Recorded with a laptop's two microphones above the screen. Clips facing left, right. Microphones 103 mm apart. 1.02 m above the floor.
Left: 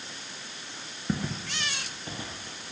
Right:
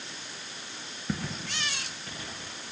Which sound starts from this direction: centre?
Footsteps, at 1.1 s.